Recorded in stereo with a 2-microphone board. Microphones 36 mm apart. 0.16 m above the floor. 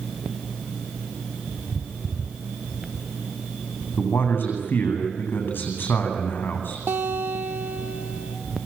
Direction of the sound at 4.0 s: 60° left (ahead or behind).